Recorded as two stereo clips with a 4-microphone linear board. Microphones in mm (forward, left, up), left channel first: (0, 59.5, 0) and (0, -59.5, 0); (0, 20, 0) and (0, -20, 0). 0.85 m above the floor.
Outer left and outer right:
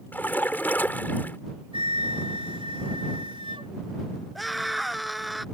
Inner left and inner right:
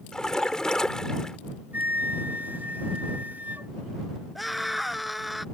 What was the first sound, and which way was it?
A splash, 15° left (ahead or behind).